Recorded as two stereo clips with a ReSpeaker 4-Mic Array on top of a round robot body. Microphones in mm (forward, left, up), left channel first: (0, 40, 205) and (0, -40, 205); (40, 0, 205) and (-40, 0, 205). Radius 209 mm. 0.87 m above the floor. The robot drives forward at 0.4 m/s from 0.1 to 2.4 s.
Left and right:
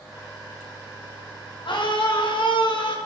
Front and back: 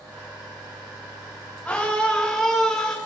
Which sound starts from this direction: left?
A scream, at 1.6 s.